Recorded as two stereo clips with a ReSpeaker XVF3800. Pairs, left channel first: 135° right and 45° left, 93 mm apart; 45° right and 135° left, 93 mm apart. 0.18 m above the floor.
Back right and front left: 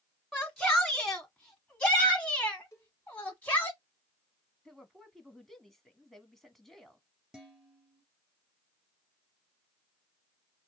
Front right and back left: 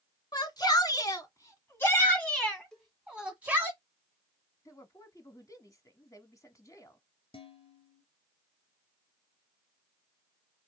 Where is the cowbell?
125° right, 1.7 m.